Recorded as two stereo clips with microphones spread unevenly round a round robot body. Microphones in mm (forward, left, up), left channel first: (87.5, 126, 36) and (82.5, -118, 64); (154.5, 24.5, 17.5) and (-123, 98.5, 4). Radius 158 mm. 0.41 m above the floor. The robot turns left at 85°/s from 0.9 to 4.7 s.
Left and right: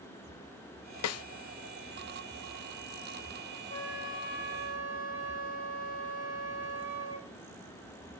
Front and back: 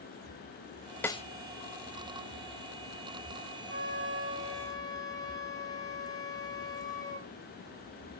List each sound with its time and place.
1.0 s a snare drum: 70° left, 0.6 m; by 1.2 s 55° left, 0.6 m
3.7 s a flute: 150° left, 4 m; by 7.3 s 65° left, 4 m